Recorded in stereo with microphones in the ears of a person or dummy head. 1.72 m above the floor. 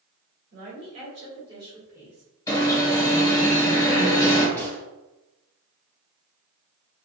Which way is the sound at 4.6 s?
10° left (ahead or behind).